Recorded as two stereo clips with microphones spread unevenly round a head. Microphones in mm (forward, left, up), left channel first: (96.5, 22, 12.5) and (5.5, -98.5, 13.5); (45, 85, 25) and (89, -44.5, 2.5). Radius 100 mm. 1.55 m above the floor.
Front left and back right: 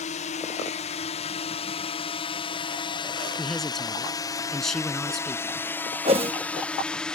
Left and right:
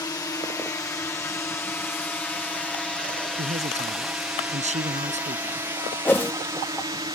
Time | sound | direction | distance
0.0 | a drone | 50° left | ?
3.4 | a man speaking | 35° right | ?
6.0 | a whoosh | straight behind | ?